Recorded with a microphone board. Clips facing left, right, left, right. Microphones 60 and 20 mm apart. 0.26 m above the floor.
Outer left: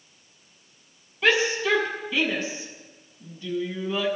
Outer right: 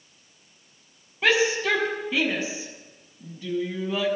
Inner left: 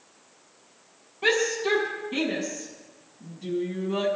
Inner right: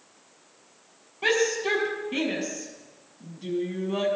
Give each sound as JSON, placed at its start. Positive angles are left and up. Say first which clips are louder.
{"t": 1.2, "sound": "a shout", "louder": "even, even", "side_deg": -25, "distance_m": 6.5}